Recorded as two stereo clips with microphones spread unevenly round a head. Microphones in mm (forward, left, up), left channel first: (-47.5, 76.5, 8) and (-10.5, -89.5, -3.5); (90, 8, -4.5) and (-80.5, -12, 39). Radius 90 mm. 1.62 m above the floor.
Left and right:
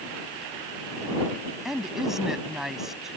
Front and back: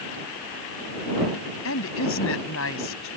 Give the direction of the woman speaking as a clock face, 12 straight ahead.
12 o'clock.